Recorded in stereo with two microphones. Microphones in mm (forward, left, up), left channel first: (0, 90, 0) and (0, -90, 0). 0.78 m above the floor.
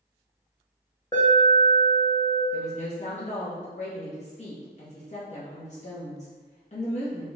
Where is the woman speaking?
40° left (ahead or behind), 0.9 m.